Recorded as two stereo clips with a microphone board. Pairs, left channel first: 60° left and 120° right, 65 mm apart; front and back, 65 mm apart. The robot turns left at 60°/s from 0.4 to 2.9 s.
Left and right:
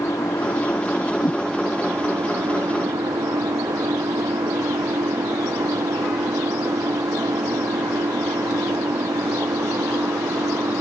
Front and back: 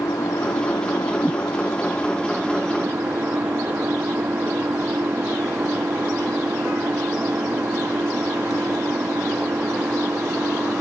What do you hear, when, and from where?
0.0 s an engine running: 30° left; by 10.8 s 120° right
1.2 s a whoosh: 75° left; by 1.4 s 60° left